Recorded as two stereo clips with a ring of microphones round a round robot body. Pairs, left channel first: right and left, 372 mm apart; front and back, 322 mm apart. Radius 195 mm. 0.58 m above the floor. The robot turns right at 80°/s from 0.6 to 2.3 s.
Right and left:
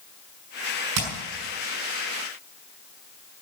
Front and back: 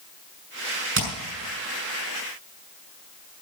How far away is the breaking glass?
I don't hear breaking glass.